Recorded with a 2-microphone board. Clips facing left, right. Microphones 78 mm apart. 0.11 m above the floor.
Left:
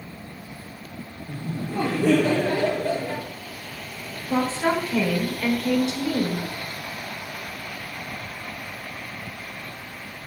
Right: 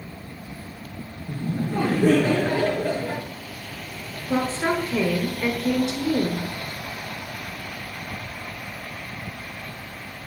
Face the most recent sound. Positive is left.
turn(degrees=-25)  # may be behind; listen again after turning